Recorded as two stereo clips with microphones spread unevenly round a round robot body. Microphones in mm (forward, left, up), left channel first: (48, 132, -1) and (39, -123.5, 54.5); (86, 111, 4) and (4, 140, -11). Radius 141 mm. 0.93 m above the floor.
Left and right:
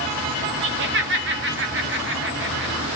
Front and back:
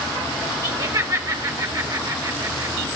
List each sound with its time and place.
0.6 s laughter: 145° right, 1.9 m